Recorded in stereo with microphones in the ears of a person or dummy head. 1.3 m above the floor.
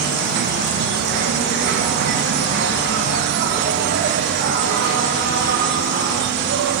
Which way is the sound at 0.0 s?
65° right (ahead or behind).